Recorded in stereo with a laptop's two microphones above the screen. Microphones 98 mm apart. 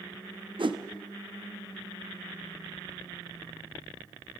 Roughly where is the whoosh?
Right.